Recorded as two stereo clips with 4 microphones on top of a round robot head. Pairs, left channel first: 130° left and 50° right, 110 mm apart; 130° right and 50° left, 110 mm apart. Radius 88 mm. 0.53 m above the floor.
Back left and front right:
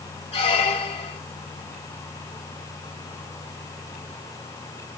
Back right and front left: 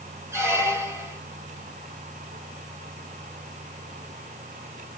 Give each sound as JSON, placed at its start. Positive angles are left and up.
{"t": 0.3, "sound": "a squeak", "azimuth_deg": 110, "distance_m": 1.1}